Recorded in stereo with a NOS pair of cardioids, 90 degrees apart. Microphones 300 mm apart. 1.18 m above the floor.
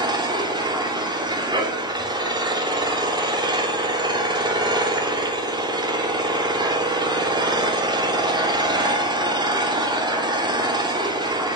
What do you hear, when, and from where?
0.0 s an engine running: 15° right, 2.5 m